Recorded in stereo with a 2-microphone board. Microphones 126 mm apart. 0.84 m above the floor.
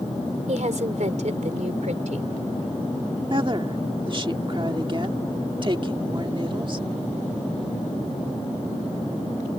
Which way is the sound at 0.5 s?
70° right (ahead or behind).